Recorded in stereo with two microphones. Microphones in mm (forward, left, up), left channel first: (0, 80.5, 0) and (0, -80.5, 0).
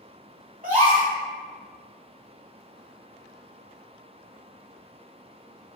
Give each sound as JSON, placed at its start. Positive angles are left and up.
{"t": 0.6, "sound": "a gasp", "side_deg": -60, "distance_m": 1.7}